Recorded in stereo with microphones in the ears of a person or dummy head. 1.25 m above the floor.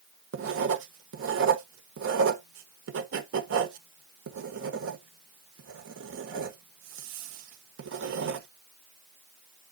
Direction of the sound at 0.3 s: 70° right (ahead or behind).